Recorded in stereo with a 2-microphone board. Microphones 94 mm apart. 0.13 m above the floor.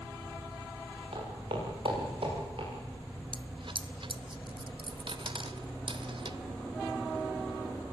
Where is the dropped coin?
60° right (ahead or behind), 0.8 m.